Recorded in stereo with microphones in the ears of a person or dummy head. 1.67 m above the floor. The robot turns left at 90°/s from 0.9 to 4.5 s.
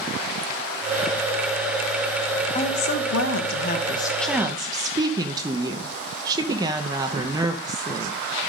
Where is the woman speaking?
155° left, 0.8 m; by 8.2 s 20° right, 0.8 m.